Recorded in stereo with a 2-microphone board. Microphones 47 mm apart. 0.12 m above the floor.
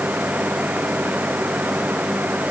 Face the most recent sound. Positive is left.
No sound to turn to.